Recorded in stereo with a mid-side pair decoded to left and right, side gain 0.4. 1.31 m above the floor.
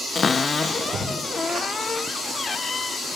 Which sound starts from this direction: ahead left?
A cupboard door, at 0.1 s.